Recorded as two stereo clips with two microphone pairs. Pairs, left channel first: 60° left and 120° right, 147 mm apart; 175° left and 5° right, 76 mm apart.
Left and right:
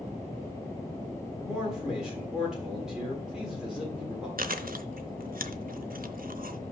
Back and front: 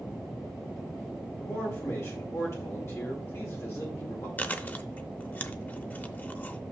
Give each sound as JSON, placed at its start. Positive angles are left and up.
{"t": 1.4, "sound": "a man speaking", "azimuth_deg": 155, "distance_m": 1.5}
{"t": 4.4, "sound": "chewing", "azimuth_deg": -115, "distance_m": 0.5}